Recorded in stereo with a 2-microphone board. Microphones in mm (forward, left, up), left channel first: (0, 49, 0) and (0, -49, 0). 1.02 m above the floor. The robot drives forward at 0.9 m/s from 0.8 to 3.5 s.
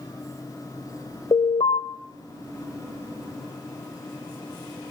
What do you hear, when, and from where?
1.3 s an alarm: 85° left, 3 m